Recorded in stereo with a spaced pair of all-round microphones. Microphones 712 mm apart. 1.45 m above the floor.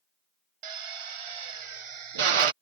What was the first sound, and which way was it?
A drill, 50° right (ahead or behind).